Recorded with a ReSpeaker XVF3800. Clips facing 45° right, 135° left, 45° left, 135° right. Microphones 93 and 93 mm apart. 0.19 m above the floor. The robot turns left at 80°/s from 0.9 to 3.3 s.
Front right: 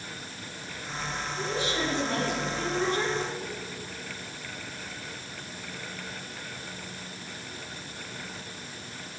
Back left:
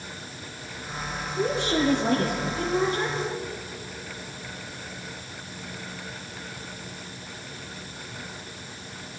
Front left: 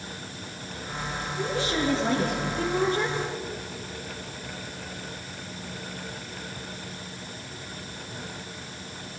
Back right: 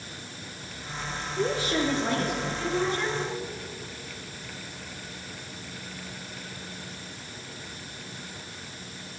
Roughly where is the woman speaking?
Behind.